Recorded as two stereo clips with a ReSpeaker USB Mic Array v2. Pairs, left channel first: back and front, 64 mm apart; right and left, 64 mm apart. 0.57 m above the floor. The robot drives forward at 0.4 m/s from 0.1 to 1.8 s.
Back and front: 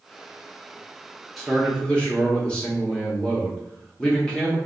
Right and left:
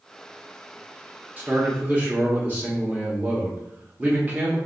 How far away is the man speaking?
About 0.7 m.